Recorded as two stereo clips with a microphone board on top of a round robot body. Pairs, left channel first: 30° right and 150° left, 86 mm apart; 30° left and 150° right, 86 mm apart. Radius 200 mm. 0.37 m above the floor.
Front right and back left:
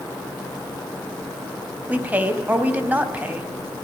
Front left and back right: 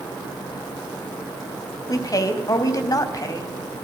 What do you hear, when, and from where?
1.9 s a woman speaking: 80° left, 3 m